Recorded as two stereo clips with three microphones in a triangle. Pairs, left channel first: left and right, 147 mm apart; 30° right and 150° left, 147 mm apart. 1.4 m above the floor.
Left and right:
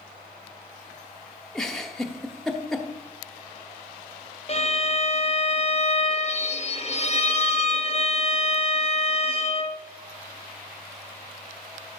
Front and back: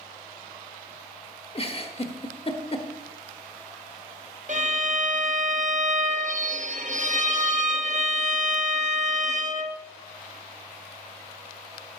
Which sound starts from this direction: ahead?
A giggle, at 1.6 s.